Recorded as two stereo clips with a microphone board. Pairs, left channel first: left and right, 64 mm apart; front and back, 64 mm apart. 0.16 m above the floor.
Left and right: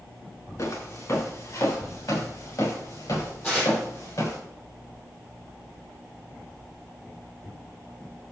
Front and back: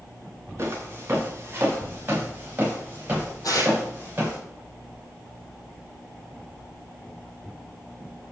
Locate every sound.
0.6 s footsteps: 125° left, 4 m; by 4.4 s 110° left, 6 m
3.4 s tearing paper: 20° left, 3.5 m